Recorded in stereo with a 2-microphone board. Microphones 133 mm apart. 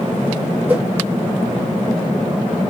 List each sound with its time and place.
0.7 s a whoosh: 15° right (ahead or behind), 0.9 m